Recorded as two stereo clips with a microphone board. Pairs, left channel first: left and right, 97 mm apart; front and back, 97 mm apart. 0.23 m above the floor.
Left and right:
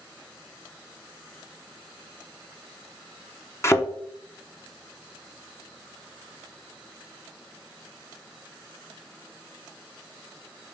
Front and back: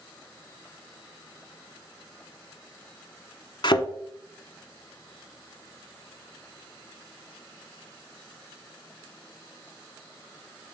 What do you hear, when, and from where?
3.6 s a thud: 30° left, 1.0 m